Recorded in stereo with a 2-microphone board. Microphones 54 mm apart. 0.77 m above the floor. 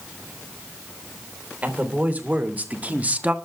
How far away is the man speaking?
About 3.5 m.